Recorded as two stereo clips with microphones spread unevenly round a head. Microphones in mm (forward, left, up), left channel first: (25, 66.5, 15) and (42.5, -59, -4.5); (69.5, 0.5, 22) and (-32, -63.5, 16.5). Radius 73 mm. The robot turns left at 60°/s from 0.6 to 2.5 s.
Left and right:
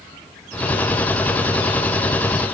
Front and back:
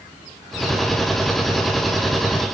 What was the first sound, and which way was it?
Only background noise.